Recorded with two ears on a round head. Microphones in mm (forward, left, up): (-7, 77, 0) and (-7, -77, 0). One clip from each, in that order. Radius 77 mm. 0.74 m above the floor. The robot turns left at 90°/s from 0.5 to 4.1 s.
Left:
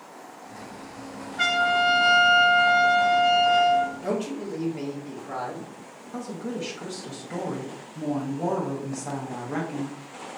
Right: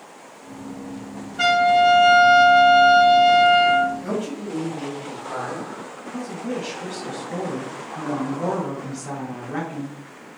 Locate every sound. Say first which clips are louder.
1.4 s a trumpet: right 6 dB; 10° right, 1.2 m; by 3.9 s 120° left, 1.2 m
4.0 s a man speaking: right 1 dB; 40° left (ahead or behind), 1.0 m; by 5.7 s 35° left (ahead or behind), 1.0 m
6.1 s a woman speaking: right 3 dB; 30° left (ahead or behind), 0.6 m